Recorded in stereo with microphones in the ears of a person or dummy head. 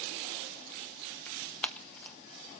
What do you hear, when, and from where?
1.3 s tearing paper: 10° left (ahead or behind), 0.7 m